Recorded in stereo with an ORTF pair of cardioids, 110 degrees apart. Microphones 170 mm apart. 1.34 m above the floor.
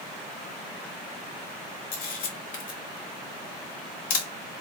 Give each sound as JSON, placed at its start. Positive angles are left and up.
{"t": 1.9, "sound": "a camera shutter", "azimuth_deg": 55, "distance_m": 0.9}